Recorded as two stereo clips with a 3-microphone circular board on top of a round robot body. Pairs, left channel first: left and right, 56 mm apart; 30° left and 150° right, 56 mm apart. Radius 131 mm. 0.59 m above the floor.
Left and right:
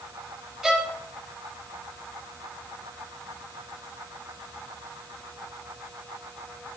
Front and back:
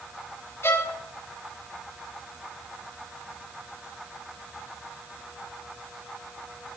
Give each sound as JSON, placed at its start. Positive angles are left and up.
{"t": 0.6, "sound": "a violin", "azimuth_deg": -10, "distance_m": 2.0}